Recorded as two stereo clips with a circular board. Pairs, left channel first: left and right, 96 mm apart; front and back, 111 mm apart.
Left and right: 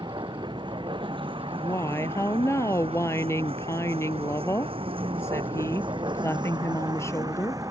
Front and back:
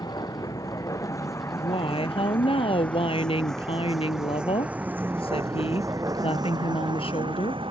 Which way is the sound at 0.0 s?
55° right.